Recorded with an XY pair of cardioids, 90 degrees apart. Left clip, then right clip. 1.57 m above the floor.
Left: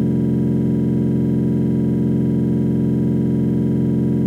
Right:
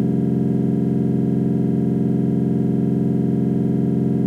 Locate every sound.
0.0 s a machine running: 55° left, 1.4 m